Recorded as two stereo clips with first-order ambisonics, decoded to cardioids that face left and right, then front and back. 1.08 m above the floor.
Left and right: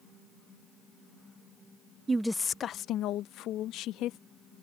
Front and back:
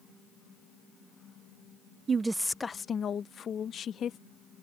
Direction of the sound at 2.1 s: 145° right.